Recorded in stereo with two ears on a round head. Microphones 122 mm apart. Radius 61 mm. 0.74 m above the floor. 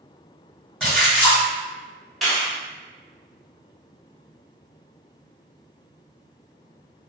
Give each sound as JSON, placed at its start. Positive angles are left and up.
{"t": 0.8, "sound": "a splash", "side_deg": 5, "distance_m": 1.5}
{"t": 2.2, "sound": "a clap", "side_deg": 0, "distance_m": 1.1}